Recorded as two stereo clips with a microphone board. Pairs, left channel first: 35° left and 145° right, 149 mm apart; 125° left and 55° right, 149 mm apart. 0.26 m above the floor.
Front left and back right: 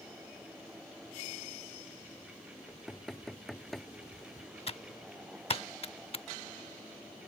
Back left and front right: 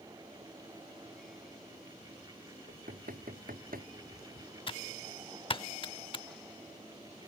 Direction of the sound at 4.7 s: 75° left.